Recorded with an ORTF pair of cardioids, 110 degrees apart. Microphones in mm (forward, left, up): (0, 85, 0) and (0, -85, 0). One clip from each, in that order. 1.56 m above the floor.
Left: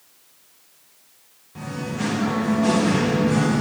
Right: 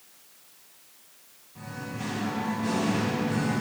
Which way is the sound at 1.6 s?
60° left.